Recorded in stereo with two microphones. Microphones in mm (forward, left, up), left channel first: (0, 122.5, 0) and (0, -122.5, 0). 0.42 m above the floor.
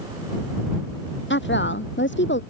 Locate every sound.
1.3 s a woman speaking: 45° left (ahead or behind)